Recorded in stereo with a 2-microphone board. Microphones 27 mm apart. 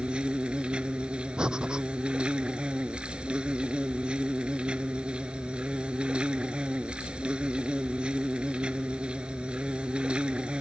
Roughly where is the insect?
Right.